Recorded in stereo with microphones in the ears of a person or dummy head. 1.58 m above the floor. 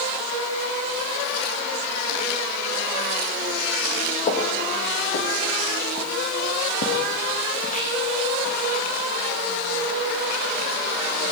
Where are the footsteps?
30° left (ahead or behind), 3 m; by 8.8 s 45° left (ahead or behind), 5 m.